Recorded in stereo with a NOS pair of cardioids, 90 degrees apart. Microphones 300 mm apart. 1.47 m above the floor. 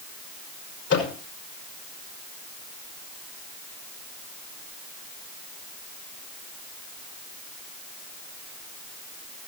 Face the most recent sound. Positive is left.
turn(degrees=50)